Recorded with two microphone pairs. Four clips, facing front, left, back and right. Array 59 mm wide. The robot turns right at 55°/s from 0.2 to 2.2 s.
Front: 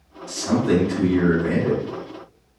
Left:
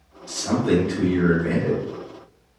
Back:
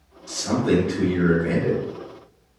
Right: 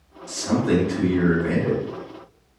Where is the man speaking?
145° left, 1.4 m; by 1.8 s 130° right, 1.4 m.